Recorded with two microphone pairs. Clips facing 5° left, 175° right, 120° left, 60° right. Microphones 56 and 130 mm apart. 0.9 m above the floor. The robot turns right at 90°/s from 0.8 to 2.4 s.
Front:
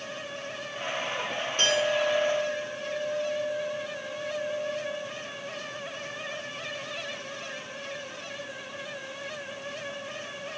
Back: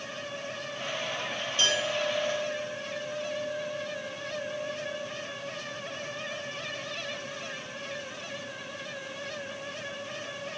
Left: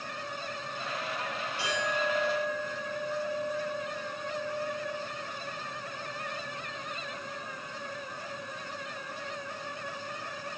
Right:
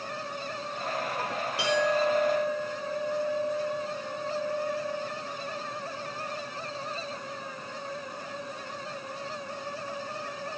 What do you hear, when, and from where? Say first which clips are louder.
1.6 s a clink: front 4 dB, right 7 dB; 45° right, 1.8 m; by 5.1 s 30° left, 1.8 m